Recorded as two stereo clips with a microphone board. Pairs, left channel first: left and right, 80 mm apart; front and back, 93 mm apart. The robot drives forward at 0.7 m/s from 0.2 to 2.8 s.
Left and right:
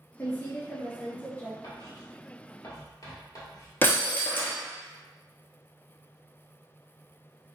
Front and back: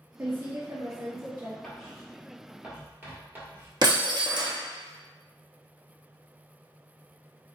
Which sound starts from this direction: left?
Writing, at 1.6 s.